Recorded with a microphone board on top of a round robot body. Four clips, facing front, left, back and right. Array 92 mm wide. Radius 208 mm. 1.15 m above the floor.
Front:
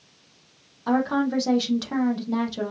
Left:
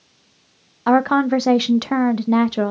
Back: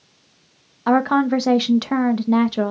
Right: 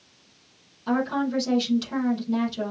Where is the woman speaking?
120° left, 0.5 m.